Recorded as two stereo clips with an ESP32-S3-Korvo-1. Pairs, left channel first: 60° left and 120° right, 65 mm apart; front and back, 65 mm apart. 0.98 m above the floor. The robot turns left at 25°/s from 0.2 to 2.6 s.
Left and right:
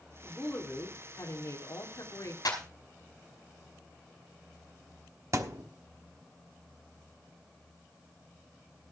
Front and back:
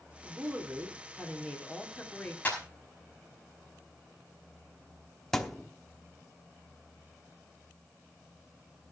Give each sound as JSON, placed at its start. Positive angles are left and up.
{"t": 0.2, "sound": "a woman speaking", "azimuth_deg": 130, "distance_m": 2.5}
{"t": 2.5, "sound": "a clap", "azimuth_deg": 65, "distance_m": 5.0}
{"t": 5.3, "sound": "a thud", "azimuth_deg": -85, "distance_m": 1.0}